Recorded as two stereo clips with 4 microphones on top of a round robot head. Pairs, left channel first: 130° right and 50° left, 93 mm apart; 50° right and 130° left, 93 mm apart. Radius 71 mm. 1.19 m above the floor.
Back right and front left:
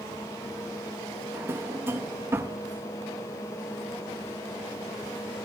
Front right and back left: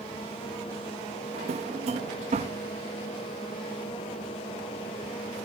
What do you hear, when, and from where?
1.3 s a drawer: 115° left, 0.8 m